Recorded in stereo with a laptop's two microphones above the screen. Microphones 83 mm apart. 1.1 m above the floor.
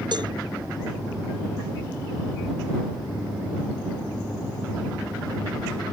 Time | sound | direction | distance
0.1 | a cowbell | 60° right (ahead or behind) | ?